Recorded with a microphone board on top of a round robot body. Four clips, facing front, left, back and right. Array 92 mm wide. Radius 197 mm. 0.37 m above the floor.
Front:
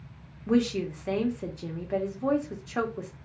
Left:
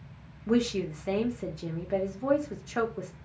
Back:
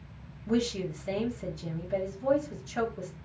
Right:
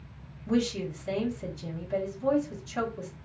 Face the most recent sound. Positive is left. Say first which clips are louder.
# left 1 dB, front 4 dB
turn(degrees=45)